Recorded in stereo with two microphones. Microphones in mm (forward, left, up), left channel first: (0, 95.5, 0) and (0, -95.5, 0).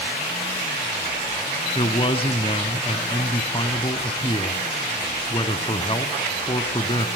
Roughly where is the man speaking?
Left.